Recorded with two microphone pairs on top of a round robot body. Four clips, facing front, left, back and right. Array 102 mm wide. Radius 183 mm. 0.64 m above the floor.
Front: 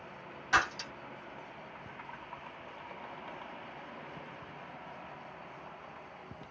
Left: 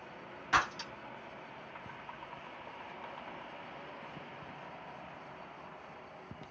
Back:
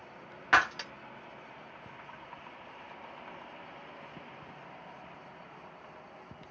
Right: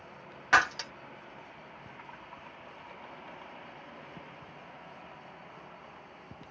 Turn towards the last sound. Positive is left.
turn(degrees=-145)